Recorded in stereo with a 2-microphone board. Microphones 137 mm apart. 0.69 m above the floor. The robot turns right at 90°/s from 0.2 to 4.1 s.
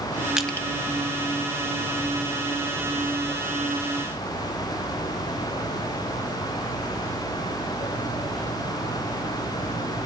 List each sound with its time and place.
0.4 s crushing: 5° right (ahead or behind), 1.0 m; by 0.7 s 20° left (ahead or behind), 1.0 m